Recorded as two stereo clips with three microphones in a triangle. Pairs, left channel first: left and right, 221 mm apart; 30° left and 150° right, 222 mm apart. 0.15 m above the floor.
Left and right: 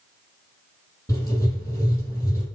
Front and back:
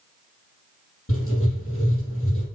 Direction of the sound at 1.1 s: 15° left.